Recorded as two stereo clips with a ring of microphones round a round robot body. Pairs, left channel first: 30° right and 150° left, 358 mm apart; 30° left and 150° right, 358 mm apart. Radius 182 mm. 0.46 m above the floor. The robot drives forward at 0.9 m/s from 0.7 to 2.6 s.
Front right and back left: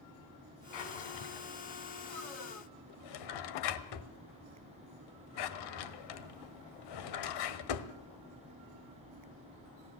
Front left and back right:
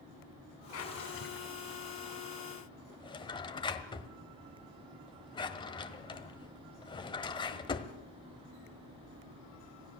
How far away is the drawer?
About 3 m.